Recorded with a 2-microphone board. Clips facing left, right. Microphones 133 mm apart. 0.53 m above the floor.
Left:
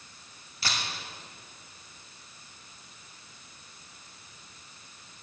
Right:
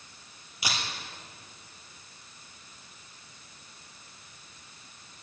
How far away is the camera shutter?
About 2.5 m.